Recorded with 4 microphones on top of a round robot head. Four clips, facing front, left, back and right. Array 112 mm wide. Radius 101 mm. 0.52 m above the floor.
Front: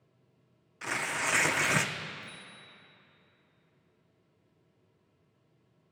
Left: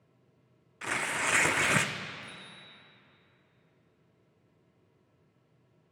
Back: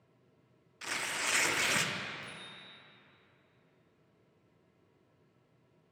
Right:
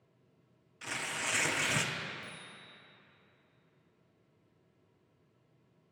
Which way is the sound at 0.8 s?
55° left.